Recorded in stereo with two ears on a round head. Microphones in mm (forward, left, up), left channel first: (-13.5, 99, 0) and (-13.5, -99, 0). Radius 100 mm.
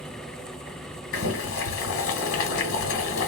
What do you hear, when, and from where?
1.1 s boiling: 65° left (ahead or behind), 1.1 m